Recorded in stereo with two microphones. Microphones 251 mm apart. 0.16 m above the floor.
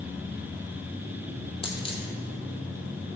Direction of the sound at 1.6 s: 20° left (ahead or behind).